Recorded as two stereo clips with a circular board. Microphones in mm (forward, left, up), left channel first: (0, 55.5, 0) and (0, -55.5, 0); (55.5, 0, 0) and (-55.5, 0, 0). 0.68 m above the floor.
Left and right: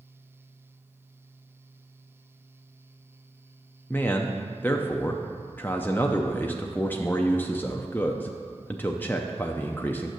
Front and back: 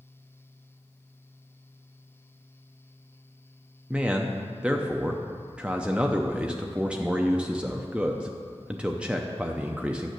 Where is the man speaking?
120° left, 0.6 m.